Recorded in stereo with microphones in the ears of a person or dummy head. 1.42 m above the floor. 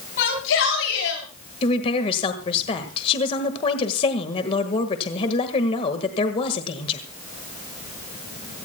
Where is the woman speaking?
30° left (ahead or behind), 1.6 m.